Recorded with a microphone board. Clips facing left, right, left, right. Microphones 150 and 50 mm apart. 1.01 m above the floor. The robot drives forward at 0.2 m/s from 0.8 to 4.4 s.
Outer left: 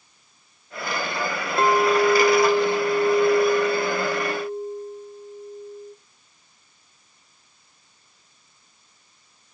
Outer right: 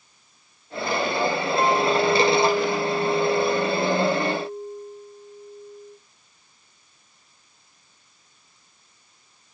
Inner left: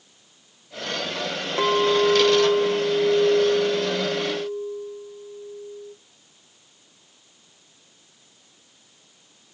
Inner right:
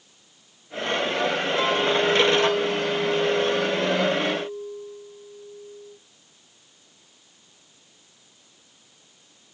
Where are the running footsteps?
No running footsteps in this recording.